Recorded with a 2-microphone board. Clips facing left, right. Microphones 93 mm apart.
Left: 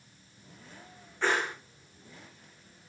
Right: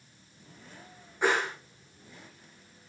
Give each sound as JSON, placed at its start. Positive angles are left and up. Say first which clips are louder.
{"t": 1.2, "sound": "a whoosh", "louder": "right 2 dB", "side_deg": -15, "distance_m": 8.0}